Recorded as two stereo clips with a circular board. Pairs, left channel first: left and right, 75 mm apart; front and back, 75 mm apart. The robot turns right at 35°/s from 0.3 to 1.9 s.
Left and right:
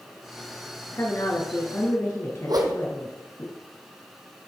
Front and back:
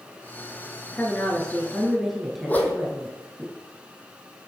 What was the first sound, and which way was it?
A woman speaking, 55° left.